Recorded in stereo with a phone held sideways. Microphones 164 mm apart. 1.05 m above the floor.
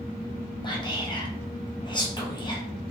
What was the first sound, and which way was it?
Whispering, 25° left (ahead or behind).